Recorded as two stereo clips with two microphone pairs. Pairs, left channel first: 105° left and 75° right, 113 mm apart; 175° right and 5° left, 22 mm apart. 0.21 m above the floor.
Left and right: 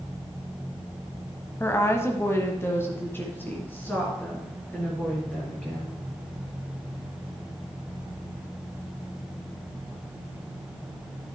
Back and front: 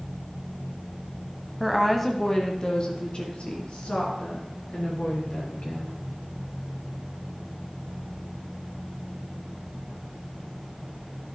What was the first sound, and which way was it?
A woman speaking, 90° left.